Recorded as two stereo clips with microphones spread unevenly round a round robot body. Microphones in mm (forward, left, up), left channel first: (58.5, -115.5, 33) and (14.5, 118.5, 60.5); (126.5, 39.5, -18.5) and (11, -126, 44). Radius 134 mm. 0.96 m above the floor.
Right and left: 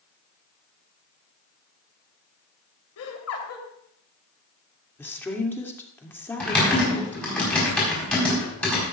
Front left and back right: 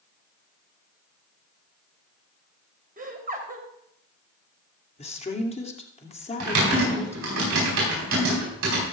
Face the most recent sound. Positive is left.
turn(degrees=-165)